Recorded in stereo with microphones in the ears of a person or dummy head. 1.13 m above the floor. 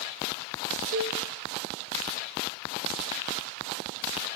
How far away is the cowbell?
About 0.8 m.